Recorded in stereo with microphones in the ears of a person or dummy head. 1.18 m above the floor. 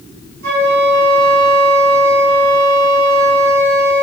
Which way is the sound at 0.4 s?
55° right (ahead or behind).